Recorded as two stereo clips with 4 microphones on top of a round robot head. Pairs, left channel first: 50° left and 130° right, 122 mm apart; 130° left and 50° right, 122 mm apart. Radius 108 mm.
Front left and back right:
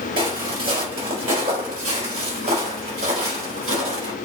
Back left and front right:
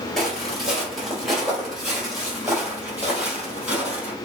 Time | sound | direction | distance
0.2 | footsteps | 140° right | 3 m